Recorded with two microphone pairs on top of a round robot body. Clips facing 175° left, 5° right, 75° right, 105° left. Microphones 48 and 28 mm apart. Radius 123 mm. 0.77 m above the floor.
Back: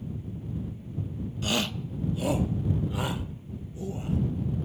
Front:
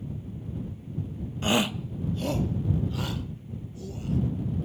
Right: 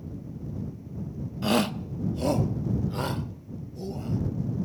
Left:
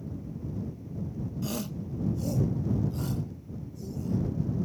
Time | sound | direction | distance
1.4 | a shout | 45° right | ?